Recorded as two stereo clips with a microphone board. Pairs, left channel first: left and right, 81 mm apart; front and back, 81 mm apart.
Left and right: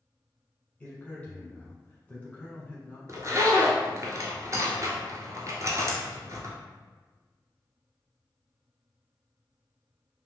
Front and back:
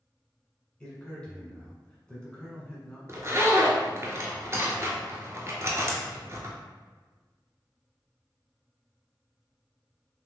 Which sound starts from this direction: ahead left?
A man speaking, at 0.8 s.